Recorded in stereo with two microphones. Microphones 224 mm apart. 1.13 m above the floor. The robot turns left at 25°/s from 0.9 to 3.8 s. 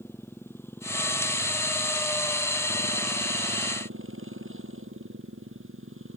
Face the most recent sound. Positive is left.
turn(degrees=-65)